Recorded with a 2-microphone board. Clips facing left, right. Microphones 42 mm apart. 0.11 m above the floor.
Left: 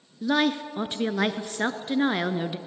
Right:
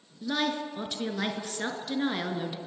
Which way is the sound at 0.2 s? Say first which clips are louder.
Left 6 dB; 30° left (ahead or behind).